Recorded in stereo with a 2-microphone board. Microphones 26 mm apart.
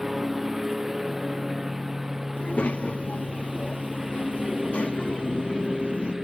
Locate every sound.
0.0 s a lawn mower: 10° right (ahead or behind); by 6.2 s 15° right (ahead or behind)
2.4 s a child speaking: 60° left (ahead or behind)